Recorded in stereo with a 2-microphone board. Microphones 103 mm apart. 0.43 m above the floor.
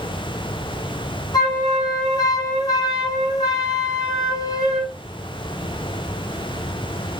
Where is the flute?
35° left (ahead or behind), 5.5 m.